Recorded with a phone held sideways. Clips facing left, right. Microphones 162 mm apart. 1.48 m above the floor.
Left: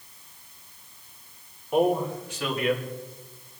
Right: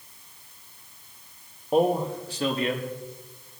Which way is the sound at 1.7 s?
35° right (ahead or behind).